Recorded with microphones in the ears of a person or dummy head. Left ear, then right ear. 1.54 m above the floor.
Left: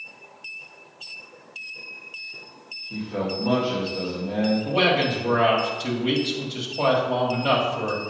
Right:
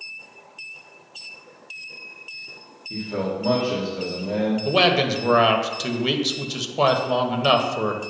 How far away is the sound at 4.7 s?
About 1.2 m.